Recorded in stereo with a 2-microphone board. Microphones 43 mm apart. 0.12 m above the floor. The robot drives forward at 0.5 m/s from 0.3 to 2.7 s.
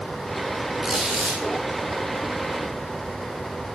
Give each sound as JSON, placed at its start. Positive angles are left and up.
{"t": 0.8, "sound": "a squeak", "side_deg": -10, "distance_m": 1.0}